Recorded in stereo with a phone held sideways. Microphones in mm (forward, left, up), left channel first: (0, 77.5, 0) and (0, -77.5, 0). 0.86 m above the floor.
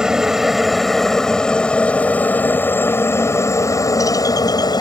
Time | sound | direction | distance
0.0 | a helicopter | 5° right (ahead or behind) | ?